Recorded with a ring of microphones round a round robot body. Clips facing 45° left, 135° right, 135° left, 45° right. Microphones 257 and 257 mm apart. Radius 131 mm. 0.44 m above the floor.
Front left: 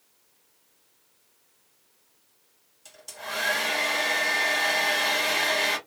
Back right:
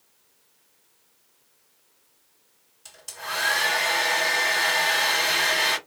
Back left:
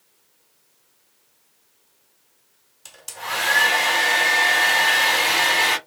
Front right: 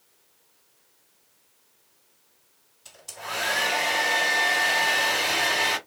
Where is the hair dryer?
150° left, 1.3 m.